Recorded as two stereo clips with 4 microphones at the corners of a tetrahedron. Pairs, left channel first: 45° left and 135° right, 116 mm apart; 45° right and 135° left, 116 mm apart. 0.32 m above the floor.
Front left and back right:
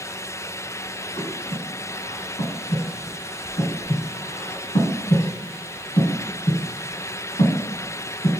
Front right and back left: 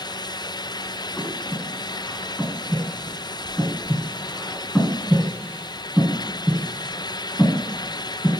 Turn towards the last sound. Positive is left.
turn(degrees=40)